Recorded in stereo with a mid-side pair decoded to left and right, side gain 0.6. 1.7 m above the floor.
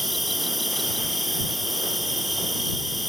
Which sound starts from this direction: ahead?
An insect, at 0.0 s.